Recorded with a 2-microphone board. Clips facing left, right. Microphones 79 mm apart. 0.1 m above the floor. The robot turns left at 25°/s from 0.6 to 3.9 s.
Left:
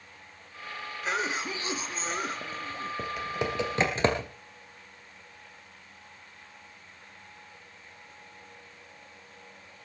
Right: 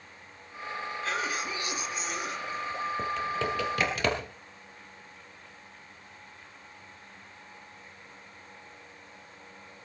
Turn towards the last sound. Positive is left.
turn(degrees=25)  # may be behind; listen again after turning